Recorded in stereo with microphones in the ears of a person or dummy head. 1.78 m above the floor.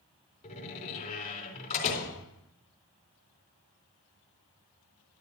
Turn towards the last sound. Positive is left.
turn(degrees=40)  # may be behind; listen again after turning